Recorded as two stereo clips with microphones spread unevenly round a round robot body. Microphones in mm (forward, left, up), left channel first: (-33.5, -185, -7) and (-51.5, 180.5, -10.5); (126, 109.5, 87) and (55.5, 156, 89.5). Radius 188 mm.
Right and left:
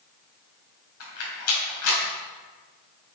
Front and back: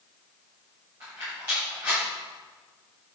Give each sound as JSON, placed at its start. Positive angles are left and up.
{"t": 1.0, "sound": "a rattle", "azimuth_deg": -135, "distance_m": 4.0}